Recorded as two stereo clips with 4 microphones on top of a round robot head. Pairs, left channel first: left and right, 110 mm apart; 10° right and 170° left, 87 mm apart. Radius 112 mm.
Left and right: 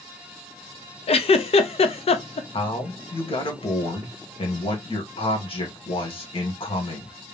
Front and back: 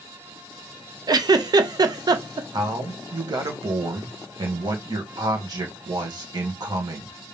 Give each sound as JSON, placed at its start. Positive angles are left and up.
{"t": 1.1, "sound": "a giggle", "azimuth_deg": 125, "distance_m": 0.7}
{"t": 2.5, "sound": "a man speaking", "azimuth_deg": 130, "distance_m": 2.0}